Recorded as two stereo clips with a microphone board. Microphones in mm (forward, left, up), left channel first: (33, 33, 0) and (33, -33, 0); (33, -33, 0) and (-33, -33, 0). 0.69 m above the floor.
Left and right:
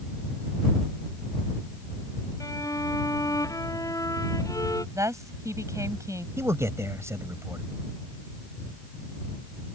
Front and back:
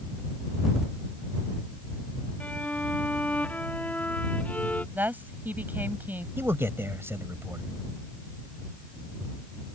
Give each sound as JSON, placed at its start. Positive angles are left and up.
{"t": 2.4, "sound": "a violin", "azimuth_deg": 70}
{"t": 5.0, "sound": "a woman speaking", "azimuth_deg": -120}
{"t": 6.4, "sound": "a man speaking", "azimuth_deg": -130}